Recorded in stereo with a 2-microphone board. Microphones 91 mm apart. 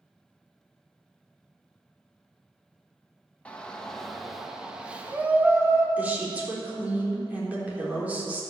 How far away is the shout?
About 1.6 m.